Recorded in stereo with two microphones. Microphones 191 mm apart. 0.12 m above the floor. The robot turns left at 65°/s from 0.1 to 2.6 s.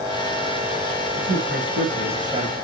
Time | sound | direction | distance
1.2 | a man speaking | 65° right | 5.5 m